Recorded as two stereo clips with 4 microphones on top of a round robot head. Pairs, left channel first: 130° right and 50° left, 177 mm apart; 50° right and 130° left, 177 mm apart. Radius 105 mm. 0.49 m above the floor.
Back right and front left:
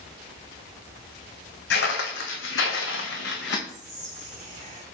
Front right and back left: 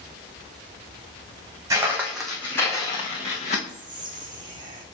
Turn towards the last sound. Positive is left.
turn(degrees=75)